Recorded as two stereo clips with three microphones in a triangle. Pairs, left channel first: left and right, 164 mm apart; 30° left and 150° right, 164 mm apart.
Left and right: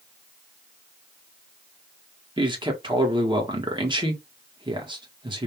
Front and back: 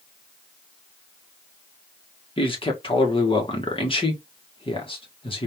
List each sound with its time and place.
2.4 s a man speaking: 30° right, 1.7 m